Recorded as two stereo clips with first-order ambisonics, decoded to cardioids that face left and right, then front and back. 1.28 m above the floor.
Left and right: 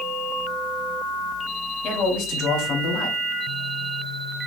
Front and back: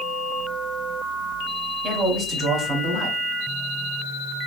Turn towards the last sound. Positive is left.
turn(degrees=115)